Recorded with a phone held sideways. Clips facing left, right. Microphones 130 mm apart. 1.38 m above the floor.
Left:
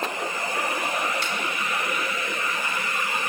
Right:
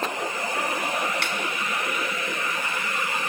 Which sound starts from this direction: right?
A snare drum, at 1.2 s.